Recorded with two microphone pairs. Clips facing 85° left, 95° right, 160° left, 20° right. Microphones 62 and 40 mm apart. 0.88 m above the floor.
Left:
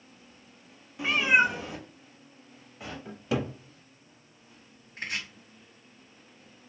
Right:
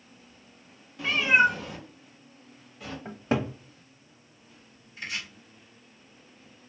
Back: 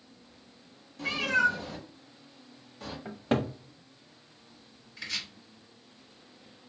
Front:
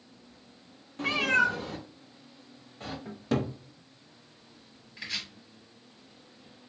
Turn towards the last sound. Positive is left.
turn(degrees=55)